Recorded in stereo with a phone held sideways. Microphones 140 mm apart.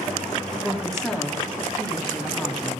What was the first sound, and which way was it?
A woman speaking, 5° left (ahead or behind).